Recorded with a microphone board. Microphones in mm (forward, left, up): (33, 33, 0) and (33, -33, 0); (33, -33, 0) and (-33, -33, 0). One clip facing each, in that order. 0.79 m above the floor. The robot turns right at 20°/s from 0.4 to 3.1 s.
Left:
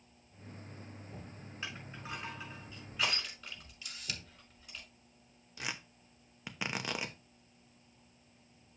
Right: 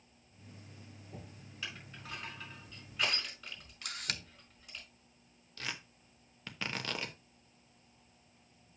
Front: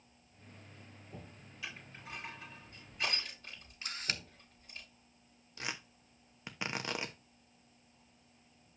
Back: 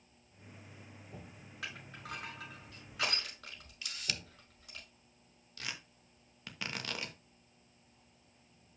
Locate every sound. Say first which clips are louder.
1.6 s crushing: left 2 dB, back 2 dB; 150° left, 5 m; by 4.8 s straight behind, 5 m
3.8 s a camera shutter: right 5 dB, front 2 dB; 55° right, 0.7 m
5.6 s tearing paper: left 1 dB, front 3 dB; 35° left, 1.0 m